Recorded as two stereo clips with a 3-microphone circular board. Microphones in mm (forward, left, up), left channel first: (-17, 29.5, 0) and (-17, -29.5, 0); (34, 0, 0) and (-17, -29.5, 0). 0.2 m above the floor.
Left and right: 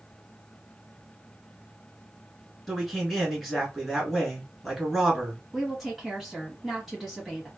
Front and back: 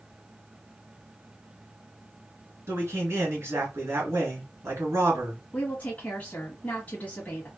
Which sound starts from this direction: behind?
A man speaking, at 2.7 s.